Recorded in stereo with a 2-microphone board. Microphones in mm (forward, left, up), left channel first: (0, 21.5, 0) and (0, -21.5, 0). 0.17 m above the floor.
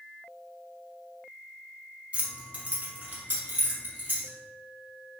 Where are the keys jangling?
30° right (ahead or behind), 0.7 m; by 4.3 s 50° right (ahead or behind), 1.8 m.